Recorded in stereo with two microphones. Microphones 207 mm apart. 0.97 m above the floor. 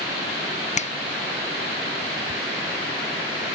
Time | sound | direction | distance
0.8 | a finger snap | 35° left (ahead or behind) | 0.6 m